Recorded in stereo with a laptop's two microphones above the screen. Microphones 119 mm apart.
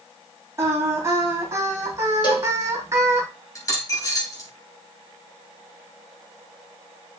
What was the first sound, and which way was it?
Singing, 25° right (ahead or behind).